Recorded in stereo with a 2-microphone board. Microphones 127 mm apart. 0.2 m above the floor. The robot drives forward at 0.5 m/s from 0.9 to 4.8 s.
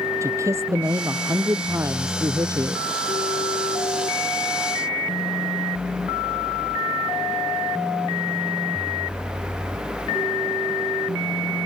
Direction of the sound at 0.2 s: 25° right (ahead or behind).